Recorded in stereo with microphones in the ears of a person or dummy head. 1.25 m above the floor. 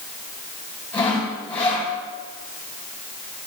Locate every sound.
0.9 s sawing: 15° left (ahead or behind), 4 m